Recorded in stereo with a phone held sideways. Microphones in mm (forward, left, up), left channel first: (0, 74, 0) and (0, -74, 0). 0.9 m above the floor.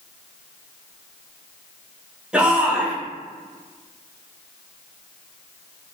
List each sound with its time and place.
2.3 s a shout: 5° right (ahead or behind), 1.1 m